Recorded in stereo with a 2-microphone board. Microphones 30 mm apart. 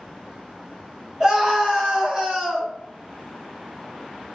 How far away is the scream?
About 1.9 m.